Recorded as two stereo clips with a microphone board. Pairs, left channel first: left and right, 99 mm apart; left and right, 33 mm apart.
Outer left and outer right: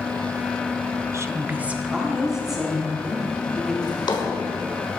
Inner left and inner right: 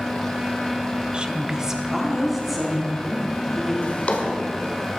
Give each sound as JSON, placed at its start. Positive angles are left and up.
{"t": 1.1, "sound": "a woman speaking", "side_deg": -30, "distance_m": 0.6}
{"t": 3.8, "sound": "a drawer", "side_deg": 50, "distance_m": 1.4}